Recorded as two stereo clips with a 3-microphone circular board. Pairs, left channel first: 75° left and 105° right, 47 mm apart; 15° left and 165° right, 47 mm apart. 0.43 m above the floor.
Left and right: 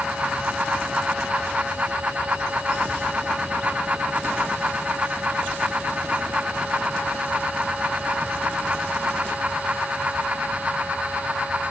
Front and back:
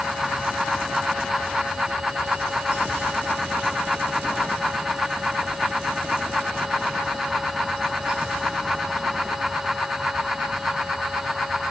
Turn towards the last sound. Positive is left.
No sound to turn to.